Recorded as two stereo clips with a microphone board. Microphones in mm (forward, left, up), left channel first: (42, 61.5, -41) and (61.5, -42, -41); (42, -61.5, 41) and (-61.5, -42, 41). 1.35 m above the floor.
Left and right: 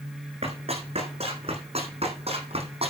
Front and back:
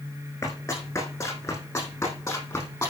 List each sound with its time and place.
0.4 s running footsteps: 65° right, 6 m; by 2.9 s 70° right, 4.5 m